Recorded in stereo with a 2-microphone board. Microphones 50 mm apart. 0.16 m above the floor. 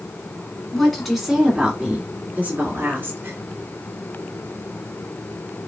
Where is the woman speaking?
10° left (ahead or behind), 1.7 m; by 3.4 s 50° right (ahead or behind), 2.5 m.